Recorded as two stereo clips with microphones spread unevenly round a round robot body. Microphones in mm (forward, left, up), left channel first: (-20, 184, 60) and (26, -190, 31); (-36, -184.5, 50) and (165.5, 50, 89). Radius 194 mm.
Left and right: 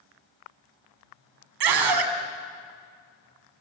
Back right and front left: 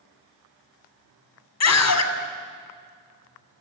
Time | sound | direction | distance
1.6 | a scream | 100° right | 2.5 m